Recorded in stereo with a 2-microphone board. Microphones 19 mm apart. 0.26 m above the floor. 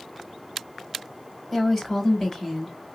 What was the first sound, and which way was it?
A woman speaking, 10° left (ahead or behind).